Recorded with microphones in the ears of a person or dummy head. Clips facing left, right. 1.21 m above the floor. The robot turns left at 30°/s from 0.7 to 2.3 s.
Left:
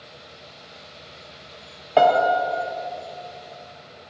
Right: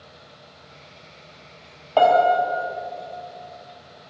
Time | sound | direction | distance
2.0 | a piano | 25° left (ahead or behind) | 0.6 m